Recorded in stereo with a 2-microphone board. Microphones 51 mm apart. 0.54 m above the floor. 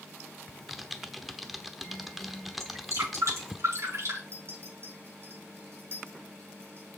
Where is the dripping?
70° right (ahead or behind), 5.5 m.